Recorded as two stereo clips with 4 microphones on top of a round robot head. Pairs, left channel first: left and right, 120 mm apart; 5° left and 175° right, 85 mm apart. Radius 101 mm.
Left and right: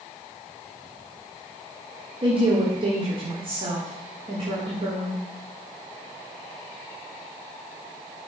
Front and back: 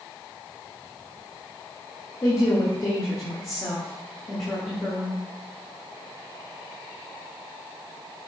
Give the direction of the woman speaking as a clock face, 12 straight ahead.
2 o'clock.